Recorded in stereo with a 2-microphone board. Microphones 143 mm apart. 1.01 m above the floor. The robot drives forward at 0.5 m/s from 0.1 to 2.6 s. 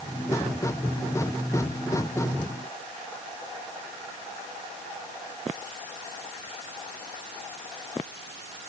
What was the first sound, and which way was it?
Only background noise.